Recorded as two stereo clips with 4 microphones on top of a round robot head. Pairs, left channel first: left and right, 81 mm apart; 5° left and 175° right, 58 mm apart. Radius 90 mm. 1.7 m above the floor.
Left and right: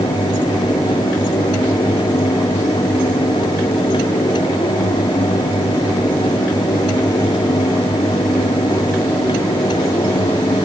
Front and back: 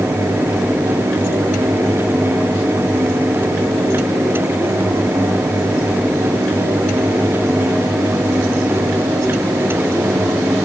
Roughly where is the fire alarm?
No fire alarm in this recording.